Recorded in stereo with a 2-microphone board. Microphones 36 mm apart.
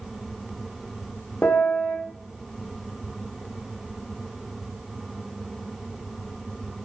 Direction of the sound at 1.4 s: 70° left (ahead or behind).